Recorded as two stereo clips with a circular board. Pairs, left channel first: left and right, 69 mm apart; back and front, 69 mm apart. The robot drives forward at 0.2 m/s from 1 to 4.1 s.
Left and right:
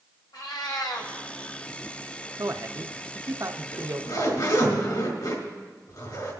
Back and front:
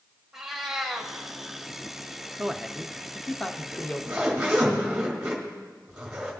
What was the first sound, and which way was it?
A cat meowing, 85° left.